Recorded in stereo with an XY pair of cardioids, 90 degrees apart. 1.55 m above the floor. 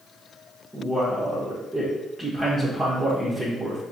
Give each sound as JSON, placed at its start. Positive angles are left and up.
{"t": 0.7, "sound": "a man speaking", "azimuth_deg": -10, "distance_m": 1.3}